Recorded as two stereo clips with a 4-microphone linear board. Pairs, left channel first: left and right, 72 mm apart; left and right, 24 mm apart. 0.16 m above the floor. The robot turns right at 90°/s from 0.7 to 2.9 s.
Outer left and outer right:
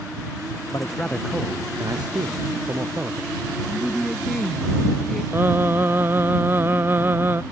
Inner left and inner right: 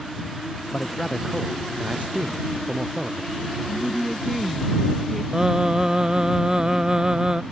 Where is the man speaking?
135° left; by 3.3 s 30° right.